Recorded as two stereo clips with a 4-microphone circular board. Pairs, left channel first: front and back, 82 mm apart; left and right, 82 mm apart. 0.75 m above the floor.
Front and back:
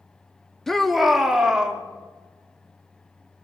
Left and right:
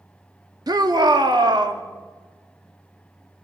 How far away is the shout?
About 1.5 m.